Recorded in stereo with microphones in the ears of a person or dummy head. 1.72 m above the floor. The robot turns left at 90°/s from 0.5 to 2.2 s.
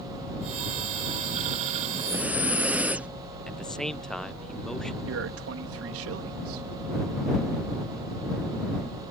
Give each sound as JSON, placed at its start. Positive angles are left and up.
{"t": 1.8, "sound": "breathing", "azimuth_deg": -140}
{"t": 3.5, "sound": "a man speaking", "side_deg": 0}
{"t": 5.1, "sound": "a man speaking", "side_deg": -80}